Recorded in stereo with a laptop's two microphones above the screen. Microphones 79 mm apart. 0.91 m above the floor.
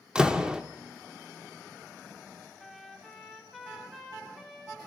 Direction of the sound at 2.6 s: 5° left (ahead or behind).